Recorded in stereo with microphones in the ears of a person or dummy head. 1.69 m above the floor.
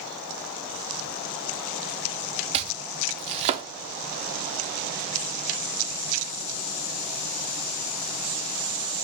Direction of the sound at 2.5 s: 25° right (ahead or behind).